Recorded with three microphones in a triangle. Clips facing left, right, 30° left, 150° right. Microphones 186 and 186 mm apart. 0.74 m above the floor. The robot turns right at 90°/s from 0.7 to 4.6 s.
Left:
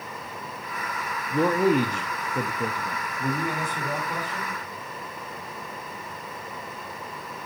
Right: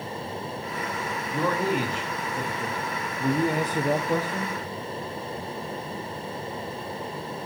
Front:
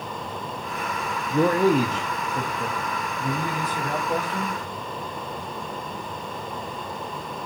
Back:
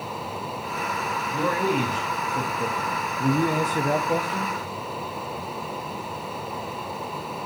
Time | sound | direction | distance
1.3 | a man speaking | 25° left | 0.8 m